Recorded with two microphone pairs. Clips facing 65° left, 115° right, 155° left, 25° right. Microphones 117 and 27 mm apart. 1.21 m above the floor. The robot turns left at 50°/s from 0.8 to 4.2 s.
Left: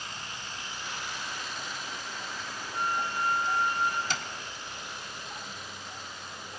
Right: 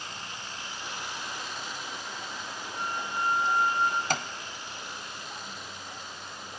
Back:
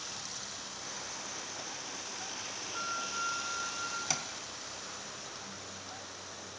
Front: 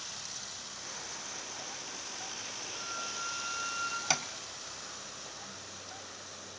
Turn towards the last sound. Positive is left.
turn(degrees=-90)